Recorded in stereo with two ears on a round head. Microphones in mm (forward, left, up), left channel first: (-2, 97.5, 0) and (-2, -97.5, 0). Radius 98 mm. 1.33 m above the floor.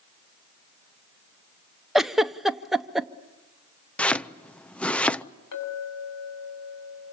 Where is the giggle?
Centre (ahead or behind), 0.7 m.